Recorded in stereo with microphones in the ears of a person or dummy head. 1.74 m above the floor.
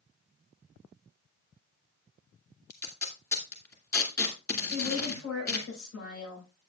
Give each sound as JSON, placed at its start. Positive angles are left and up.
{"t": 2.7, "sound": "tape being pulled", "side_deg": 15, "distance_m": 2.0}
{"t": 4.7, "sound": "a woman speaking", "side_deg": 75, "distance_m": 7.0}